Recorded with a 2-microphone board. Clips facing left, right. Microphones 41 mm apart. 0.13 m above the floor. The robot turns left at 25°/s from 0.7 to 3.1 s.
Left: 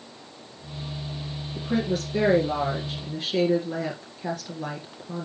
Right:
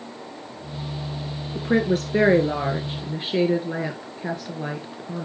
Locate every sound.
1.6 s a woman speaking: 105° right, 1.9 m; by 5.2 s 145° right, 1.9 m